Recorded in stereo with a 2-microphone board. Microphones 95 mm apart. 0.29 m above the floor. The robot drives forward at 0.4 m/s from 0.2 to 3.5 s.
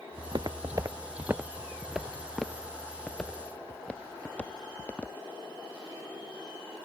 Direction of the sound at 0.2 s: 55° right (ahead or behind).